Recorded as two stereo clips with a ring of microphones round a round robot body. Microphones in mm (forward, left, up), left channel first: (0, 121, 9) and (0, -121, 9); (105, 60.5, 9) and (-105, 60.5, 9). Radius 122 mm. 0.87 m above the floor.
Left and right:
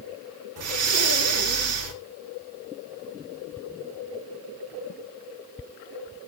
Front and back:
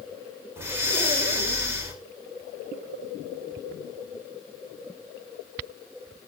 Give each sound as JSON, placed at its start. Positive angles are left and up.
{"t": 0.6, "sound": "breathing", "azimuth_deg": -100, "distance_m": 1.8}